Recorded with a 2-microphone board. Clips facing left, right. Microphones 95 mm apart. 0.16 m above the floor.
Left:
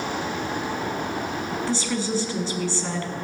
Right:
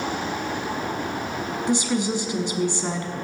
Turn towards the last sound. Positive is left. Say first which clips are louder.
# right 5 dB
turn(degrees=-15)  # may be behind; listen again after turning